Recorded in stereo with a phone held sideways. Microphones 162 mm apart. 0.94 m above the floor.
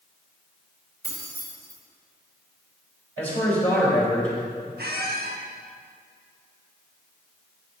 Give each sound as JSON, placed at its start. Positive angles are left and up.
{"t": 1.0, "sound": "keys jangling", "side_deg": -70, "distance_m": 2.5}
{"t": 3.2, "sound": "a man speaking", "side_deg": 10, "distance_m": 3.0}
{"t": 4.8, "sound": "a squeak", "side_deg": -75, "distance_m": 1.2}